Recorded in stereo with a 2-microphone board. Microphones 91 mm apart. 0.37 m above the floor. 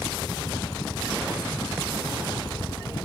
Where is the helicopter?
45° left (ahead or behind).